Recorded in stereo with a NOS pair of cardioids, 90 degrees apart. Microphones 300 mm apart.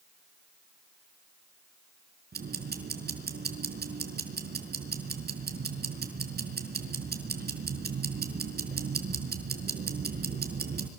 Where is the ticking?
35° right, 5 m.